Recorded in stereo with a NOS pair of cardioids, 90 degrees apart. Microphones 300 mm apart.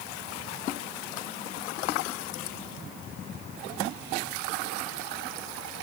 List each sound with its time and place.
Only background noise.